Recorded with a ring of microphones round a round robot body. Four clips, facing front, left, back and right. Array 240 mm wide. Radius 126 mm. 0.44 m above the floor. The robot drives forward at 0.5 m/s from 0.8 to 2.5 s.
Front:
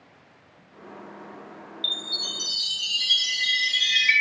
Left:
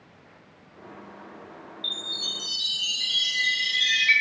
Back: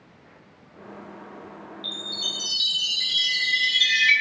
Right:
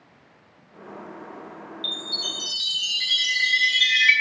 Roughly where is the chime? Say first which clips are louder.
Right 4 dB, back 1 dB; right.